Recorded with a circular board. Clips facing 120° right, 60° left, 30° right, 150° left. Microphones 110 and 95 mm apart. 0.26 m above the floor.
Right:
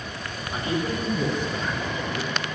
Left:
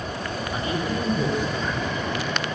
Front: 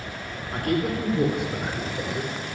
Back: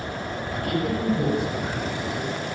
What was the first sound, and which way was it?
A man speaking, 60° right.